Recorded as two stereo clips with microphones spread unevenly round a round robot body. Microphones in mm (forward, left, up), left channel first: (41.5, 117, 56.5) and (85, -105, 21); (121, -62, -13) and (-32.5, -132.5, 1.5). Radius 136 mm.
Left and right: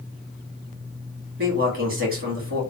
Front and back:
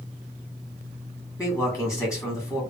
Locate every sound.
1.4 s a man speaking: 40° right, 2.0 m